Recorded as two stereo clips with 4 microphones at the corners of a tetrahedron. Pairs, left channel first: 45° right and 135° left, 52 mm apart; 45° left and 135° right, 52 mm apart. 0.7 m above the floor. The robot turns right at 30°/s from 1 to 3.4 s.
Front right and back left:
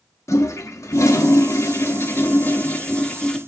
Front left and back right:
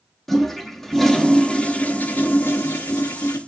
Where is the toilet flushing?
40° right, 0.7 m; by 3.4 s 30° left, 0.7 m.